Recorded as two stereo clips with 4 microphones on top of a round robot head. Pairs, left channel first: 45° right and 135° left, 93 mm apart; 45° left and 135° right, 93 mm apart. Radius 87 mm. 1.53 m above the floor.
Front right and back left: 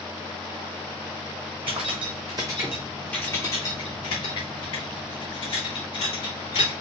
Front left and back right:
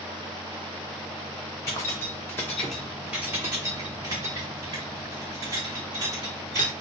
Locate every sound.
1.7 s keys jangling: 105° left, 0.9 m; by 6.7 s 80° right, 2 m